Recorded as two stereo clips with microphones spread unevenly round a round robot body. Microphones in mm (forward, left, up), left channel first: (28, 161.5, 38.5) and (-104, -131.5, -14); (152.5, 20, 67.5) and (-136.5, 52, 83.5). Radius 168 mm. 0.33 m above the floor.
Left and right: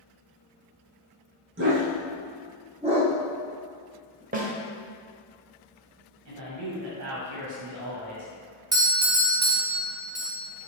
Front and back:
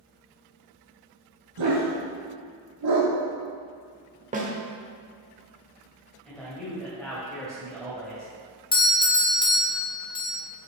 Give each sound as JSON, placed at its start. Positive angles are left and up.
{"t": 1.6, "sound": "a dog barking", "azimuth_deg": -170, "distance_m": 3.5}
{"t": 4.3, "sound": "a snare drum", "azimuth_deg": -135, "distance_m": 1.5}
{"t": 6.2, "sound": "a man speaking", "azimuth_deg": -90, "distance_m": 2.0}
{"t": 8.7, "sound": "a doorbell", "azimuth_deg": -60, "distance_m": 1.4}